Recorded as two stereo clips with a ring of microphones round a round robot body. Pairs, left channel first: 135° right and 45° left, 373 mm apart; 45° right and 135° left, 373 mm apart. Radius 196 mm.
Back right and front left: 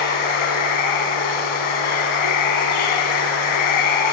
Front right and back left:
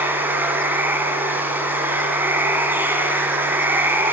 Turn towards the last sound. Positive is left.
turn(degrees=-140)